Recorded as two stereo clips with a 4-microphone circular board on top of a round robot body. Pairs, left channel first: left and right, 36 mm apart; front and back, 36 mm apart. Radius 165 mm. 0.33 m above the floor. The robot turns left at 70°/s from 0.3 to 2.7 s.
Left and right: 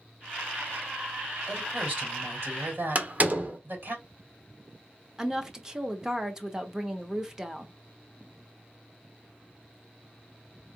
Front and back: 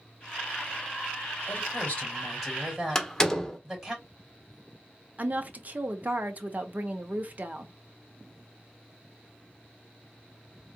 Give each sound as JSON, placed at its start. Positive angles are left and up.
{"t": 1.5, "sound": "a woman speaking", "azimuth_deg": -20, "distance_m": 3.0}
{"t": 3.0, "sound": "a door slam", "azimuth_deg": -70, "distance_m": 1.3}
{"t": 5.2, "sound": "a woman speaking", "azimuth_deg": -160, "distance_m": 1.1}